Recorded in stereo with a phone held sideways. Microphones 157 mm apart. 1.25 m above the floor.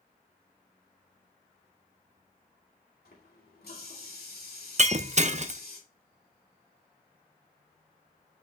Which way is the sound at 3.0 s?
80° left.